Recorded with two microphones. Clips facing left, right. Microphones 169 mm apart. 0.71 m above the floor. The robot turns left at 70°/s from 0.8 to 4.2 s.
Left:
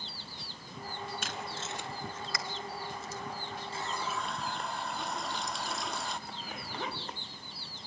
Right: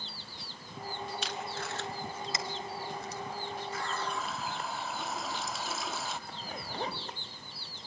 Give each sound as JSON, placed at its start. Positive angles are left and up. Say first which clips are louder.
{"t": 1.2, "sound": "tape being pulled", "louder": "right 2 dB", "side_deg": 50, "distance_m": 1.3}
{"t": 3.7, "sound": "a running tap", "louder": "left 1 dB", "azimuth_deg": 30, "distance_m": 0.6}
{"t": 6.3, "sound": "a zipper", "louder": "right 1 dB", "side_deg": -35, "distance_m": 1.8}